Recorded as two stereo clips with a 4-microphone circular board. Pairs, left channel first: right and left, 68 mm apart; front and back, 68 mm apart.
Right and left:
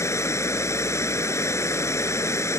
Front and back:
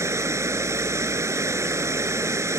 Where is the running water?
135° right.